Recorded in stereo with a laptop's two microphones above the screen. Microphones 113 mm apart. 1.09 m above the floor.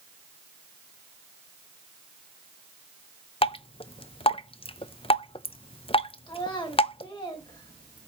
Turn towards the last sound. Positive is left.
turn(degrees=45)  # may be behind; listen again after turning